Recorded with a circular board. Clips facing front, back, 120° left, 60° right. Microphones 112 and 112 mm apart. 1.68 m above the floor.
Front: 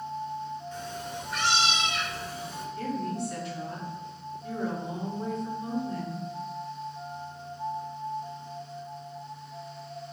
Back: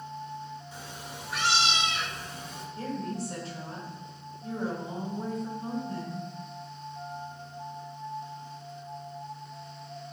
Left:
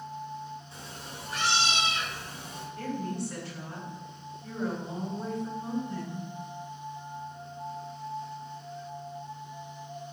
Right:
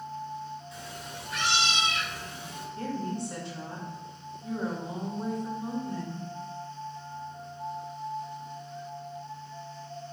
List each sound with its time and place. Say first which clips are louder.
0.7 s a cat meowing: front 6 dB, right 3 dB; 110° left, 1.5 m; by 2.6 s 80° left, 2 m
2.8 s a woman speaking: front 2 dB, right 1 dB; 130° right, 3.5 m